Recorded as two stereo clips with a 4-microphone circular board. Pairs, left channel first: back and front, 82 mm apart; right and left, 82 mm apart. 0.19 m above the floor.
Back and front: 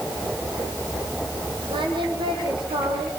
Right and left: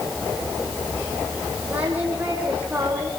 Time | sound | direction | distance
1.7 | singing | 15° left | 6 m